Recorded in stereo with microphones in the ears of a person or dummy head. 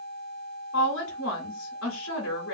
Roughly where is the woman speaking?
Left.